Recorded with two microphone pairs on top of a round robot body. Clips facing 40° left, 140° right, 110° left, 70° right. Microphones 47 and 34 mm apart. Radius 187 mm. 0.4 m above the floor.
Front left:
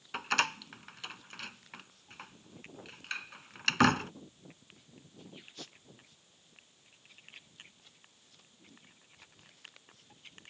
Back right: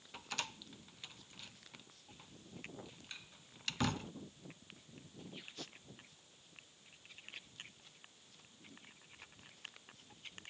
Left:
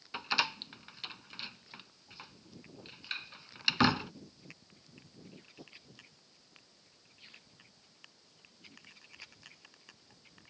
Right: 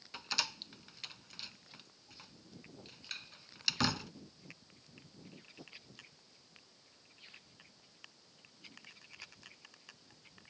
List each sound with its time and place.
0.1 s a door slam: 45° left